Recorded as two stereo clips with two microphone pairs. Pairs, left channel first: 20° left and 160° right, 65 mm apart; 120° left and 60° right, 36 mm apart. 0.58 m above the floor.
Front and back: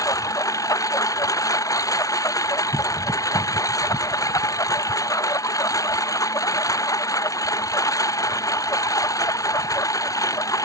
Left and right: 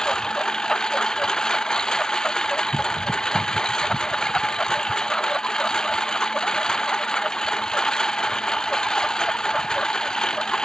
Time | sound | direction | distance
0.0 | a lawn mower | 50° left | ?